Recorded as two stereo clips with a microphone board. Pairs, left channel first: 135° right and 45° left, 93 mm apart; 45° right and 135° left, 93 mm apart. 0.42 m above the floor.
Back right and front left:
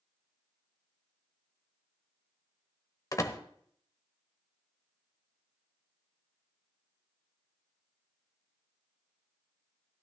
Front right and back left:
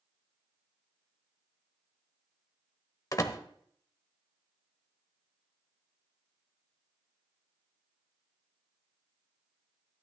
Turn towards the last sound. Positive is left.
turn(degrees=-90)